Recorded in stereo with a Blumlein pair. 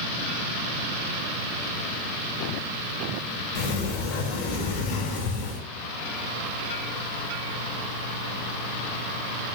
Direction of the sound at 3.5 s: 50° left.